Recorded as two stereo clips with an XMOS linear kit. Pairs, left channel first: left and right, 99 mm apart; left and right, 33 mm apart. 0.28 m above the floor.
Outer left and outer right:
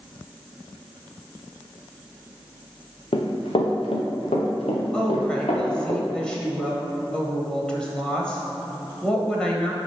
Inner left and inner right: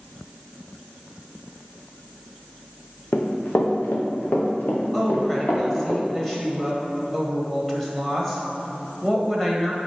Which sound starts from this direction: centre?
A woman speaking, at 4.9 s.